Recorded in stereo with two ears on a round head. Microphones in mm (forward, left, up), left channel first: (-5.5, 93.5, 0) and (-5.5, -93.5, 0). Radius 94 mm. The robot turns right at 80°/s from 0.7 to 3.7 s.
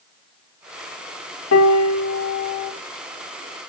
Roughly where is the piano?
Left.